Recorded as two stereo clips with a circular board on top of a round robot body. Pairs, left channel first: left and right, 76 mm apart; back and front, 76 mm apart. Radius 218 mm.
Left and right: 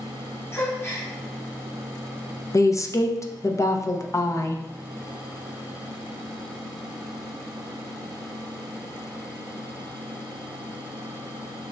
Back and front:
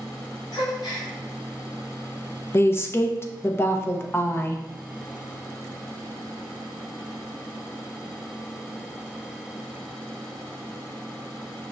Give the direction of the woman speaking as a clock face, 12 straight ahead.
8 o'clock.